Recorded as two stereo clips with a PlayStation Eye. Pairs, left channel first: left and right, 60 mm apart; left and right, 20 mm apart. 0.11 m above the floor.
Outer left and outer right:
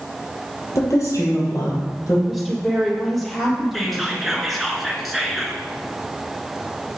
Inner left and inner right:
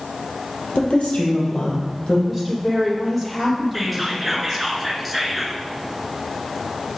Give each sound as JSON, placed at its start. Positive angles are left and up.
{"t": 0.8, "sound": "a woman speaking", "side_deg": 65, "distance_m": 3.0}
{"t": 2.3, "sound": "a woman speaking", "side_deg": 5, "distance_m": 3.0}
{"t": 3.7, "sound": "whispering", "side_deg": 0, "distance_m": 1.1}